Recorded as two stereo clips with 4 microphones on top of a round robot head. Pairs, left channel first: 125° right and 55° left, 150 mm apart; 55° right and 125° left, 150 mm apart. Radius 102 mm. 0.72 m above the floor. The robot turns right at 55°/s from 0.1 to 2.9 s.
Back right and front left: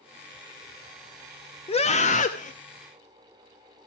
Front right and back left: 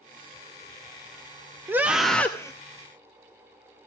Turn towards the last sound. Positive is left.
turn(degrees=-95)